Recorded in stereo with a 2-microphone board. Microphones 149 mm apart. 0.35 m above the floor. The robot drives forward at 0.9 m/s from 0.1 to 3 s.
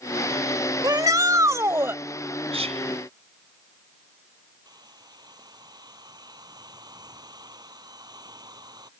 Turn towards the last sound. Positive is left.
turn(degrees=-25)  # may be behind; listen again after turning